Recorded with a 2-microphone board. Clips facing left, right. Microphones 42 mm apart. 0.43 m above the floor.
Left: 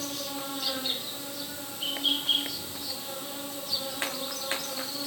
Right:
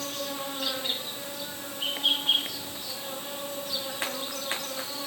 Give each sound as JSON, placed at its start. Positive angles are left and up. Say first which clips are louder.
{"t": 0.0, "sound": "an insect", "louder": "right 2 dB", "side_deg": -45, "distance_m": 2.0}